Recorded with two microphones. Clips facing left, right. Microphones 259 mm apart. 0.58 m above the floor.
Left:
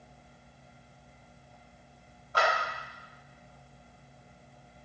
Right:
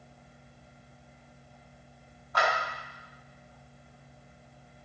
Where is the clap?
30° left (ahead or behind), 3.5 m.